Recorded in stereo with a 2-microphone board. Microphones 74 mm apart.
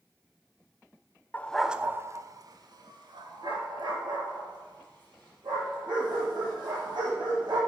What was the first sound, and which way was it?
A dog barking, 25° left (ahead or behind).